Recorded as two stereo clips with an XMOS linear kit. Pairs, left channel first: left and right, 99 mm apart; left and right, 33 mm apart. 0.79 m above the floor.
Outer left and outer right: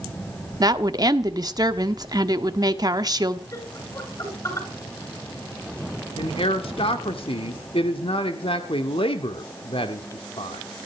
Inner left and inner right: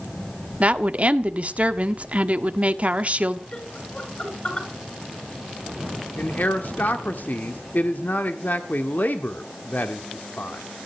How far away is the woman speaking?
About 1.3 m.